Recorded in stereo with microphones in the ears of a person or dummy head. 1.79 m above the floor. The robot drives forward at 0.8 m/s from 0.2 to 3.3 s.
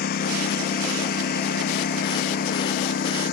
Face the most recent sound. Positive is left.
turn(degrees=55)  # may be behind; listen again after turning